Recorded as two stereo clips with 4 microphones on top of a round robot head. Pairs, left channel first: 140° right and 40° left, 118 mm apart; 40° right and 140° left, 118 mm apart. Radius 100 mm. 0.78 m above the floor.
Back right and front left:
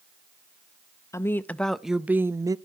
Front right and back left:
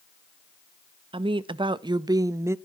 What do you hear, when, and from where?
1.1 s a woman speaking: 160° left, 0.8 m; by 2.5 s 85° left, 0.8 m